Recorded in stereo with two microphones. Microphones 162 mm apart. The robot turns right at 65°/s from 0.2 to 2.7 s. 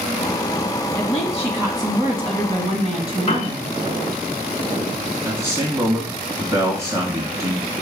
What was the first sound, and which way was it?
A woman speaking, 165° left.